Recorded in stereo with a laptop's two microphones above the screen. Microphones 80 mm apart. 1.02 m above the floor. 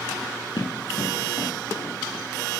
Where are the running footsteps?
70° left (ahead or behind), 3 m; by 2.2 s 45° left (ahead or behind), 1.5 m.